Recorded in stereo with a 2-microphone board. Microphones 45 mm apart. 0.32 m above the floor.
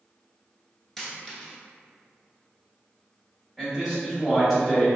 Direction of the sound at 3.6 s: 5° left (ahead or behind).